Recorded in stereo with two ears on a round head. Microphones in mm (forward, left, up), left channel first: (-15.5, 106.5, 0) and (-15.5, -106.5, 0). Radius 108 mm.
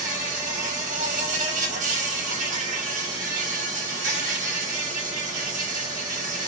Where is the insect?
35° right (ahead or behind), 1.6 m.